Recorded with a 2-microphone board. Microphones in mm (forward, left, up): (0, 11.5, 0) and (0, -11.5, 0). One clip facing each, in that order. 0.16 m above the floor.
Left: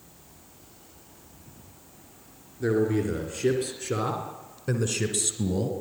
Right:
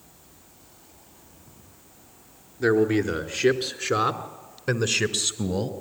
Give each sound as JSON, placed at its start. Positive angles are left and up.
{"t": 2.6, "sound": "a man speaking", "side_deg": -50, "distance_m": 2.5}